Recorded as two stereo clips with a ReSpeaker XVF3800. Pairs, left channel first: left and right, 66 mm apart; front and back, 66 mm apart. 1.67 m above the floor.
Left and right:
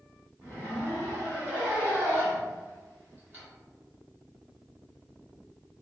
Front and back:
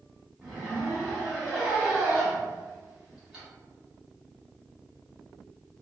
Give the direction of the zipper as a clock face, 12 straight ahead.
3 o'clock.